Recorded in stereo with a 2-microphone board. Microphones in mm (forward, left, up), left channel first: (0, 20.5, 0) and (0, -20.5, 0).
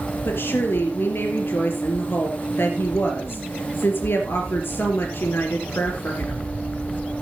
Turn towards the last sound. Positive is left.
turn(degrees=65)  # may be behind; listen again after turning